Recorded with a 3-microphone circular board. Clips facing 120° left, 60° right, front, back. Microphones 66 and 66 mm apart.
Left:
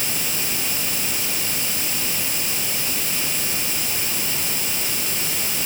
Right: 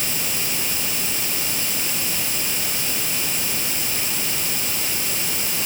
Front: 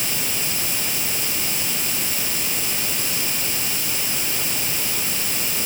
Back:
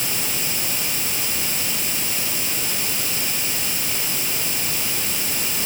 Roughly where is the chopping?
I don't hear chopping.